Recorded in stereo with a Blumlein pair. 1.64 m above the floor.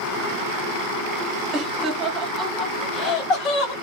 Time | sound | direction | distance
1.5 | laughter | 35° right | 0.9 m